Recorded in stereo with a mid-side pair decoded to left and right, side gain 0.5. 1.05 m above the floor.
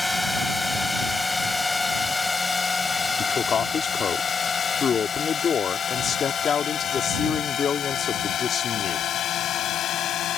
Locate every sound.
0.0 s a drone: 5° left; by 10.4 s 65° left
3.2 s a man speaking: 40° left